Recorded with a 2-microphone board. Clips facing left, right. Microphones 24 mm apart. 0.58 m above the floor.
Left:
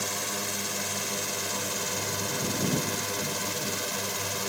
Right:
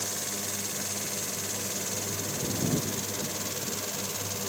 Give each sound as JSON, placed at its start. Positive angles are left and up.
{"t": 0.0, "sound": "a drone", "side_deg": 50}